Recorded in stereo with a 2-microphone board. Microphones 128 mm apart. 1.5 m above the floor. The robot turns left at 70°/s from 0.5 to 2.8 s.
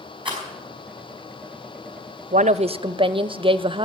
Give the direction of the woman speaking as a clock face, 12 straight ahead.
3 o'clock.